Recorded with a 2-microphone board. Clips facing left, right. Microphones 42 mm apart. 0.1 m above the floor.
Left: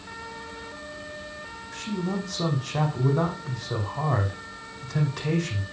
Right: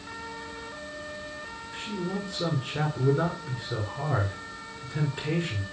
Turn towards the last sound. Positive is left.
turn(degrees=70)  # may be behind; listen again after turning